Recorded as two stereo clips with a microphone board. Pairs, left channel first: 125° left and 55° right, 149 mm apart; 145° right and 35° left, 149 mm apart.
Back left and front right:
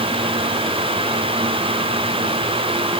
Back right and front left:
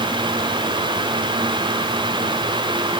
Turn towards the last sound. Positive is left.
No sound to turn to.